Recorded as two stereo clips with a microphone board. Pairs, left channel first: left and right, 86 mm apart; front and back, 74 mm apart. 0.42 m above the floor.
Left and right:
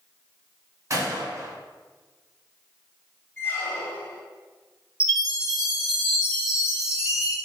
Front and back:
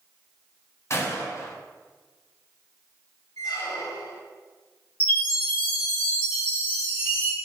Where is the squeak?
25° left, 0.7 m.